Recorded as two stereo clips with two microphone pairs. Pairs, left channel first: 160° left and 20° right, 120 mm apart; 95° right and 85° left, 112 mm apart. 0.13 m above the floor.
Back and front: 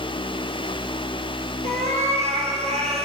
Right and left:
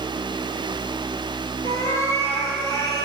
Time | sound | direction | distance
1.6 | a cat meowing | 40° right | 1.7 m